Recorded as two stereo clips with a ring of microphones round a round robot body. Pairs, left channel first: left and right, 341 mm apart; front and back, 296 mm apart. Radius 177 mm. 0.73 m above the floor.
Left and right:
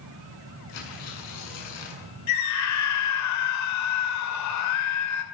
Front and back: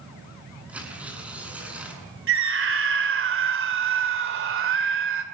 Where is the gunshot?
No gunshot in this recording.